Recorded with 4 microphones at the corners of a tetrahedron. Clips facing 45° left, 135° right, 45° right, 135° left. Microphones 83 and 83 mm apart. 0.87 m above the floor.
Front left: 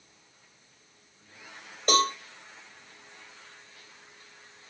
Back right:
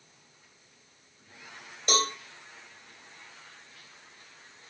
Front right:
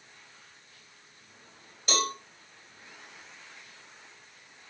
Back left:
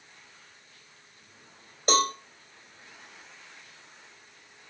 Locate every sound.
1.9 s a cowbell: 90° left, 4 m